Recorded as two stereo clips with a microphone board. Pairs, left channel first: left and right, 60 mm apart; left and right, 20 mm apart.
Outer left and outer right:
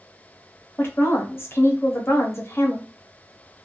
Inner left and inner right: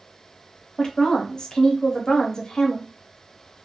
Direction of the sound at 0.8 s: 40° left (ahead or behind).